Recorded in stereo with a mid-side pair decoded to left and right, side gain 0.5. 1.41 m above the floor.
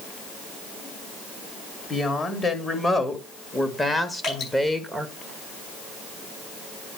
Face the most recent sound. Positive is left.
turn(degrees=60)